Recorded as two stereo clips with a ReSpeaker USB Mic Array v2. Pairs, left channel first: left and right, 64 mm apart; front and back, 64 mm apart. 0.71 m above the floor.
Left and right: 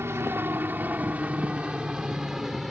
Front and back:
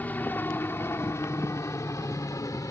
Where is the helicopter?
55° right; by 2.7 s straight ahead.